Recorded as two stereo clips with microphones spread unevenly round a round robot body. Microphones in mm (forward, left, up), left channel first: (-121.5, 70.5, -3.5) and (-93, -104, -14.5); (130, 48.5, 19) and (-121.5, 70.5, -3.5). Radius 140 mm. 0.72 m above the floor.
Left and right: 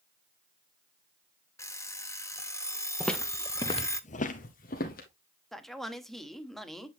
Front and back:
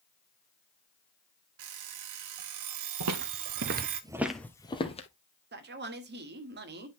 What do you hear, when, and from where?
1.6 s an alarm clock: 175° left, 1.1 m
3.0 s footsteps: 175° right, 1.2 m; by 5.1 s 55° left, 1.6 m
5.5 s a man speaking: 170° right, 1.3 m